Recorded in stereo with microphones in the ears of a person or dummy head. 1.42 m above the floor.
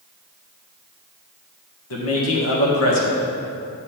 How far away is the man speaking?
About 1.9 m.